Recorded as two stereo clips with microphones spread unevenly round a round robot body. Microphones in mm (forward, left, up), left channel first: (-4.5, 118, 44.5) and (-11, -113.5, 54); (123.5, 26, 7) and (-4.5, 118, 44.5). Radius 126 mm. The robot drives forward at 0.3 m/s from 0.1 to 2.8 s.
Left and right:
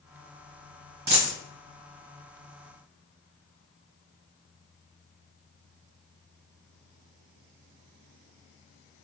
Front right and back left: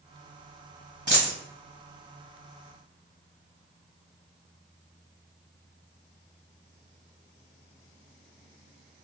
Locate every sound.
1.1 s a dropped coin: 155° right, 1.5 m